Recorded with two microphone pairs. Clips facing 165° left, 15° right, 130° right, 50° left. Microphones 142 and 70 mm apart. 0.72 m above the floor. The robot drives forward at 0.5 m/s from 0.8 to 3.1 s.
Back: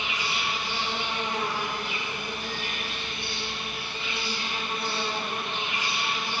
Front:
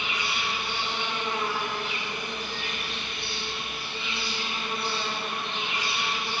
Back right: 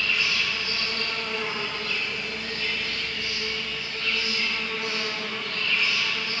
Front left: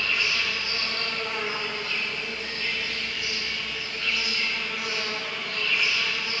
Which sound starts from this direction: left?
An insect, at 0.0 s.